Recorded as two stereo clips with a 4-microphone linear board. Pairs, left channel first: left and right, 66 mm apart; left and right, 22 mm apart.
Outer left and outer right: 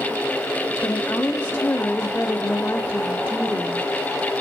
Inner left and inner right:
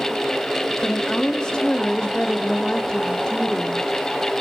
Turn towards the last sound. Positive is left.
turn(degrees=30)  # may be behind; listen again after turning